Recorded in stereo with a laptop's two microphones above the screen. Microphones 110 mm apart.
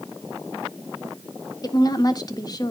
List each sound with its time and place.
1.6 s a woman speaking: 35° left (ahead or behind), 1.5 m